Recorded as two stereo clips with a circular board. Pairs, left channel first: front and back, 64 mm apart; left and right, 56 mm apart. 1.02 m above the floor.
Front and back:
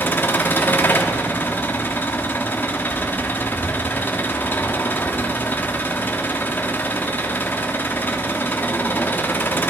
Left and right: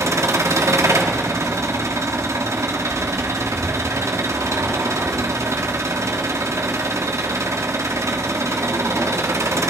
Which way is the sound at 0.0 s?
60° right.